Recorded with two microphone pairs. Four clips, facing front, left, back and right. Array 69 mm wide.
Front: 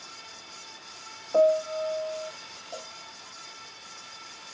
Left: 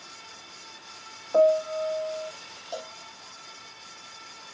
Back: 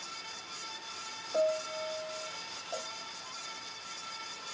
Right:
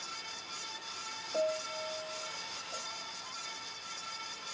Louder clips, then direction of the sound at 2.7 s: Left 9 dB, back 1 dB; 100° left.